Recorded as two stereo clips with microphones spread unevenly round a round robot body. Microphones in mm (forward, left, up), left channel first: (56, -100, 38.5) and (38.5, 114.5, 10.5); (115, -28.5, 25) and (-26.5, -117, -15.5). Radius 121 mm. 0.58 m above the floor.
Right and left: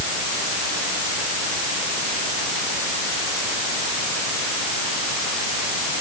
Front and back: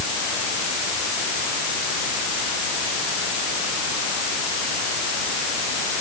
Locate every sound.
Only background noise.